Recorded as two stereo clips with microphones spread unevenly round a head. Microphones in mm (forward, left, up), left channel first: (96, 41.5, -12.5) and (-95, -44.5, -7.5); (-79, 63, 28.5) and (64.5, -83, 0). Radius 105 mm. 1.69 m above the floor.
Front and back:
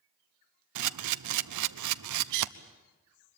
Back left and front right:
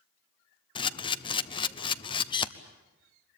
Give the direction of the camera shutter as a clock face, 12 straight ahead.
5 o'clock.